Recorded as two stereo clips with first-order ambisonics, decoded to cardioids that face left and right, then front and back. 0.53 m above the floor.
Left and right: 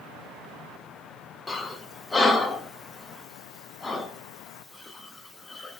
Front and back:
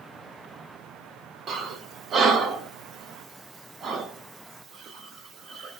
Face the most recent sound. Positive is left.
turn(degrees=160)